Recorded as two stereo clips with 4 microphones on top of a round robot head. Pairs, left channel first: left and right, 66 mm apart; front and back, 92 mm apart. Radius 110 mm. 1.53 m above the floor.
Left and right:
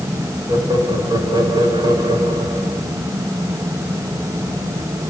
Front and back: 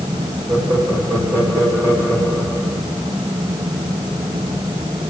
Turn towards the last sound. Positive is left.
turn(degrees=-115)